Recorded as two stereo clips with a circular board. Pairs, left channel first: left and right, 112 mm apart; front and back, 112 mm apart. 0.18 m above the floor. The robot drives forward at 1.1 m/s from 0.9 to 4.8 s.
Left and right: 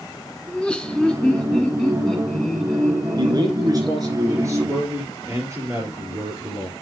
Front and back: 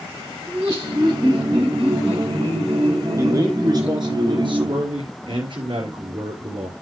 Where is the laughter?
160° left, 1.2 m; by 4.2 s 175° left, 4.5 m.